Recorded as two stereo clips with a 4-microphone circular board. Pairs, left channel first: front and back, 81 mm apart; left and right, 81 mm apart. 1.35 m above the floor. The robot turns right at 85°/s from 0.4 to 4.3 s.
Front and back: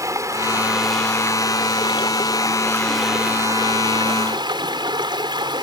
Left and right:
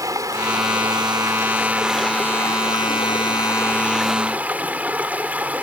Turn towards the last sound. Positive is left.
turn(degrees=-160)